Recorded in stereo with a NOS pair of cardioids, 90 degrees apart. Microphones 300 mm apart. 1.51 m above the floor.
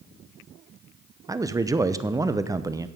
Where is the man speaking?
10° right, 0.7 m.